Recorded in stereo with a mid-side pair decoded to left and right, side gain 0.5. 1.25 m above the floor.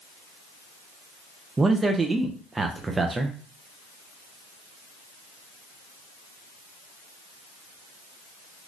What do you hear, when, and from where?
1.6 s a man speaking: 25° right, 0.5 m